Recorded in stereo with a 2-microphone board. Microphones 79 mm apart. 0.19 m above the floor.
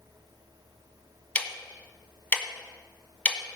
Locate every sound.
1.4 s ticking: 20° left (ahead or behind), 1.4 m